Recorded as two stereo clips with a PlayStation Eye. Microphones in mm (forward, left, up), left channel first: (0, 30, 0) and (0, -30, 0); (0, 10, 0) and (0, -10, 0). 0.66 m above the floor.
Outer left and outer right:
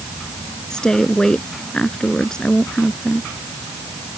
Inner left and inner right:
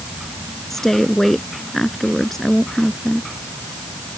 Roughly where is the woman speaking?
Centre.